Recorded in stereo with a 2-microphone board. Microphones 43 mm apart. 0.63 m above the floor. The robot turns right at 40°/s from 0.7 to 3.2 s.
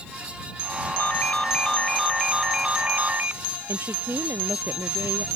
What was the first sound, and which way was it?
A ringtone, 135° left.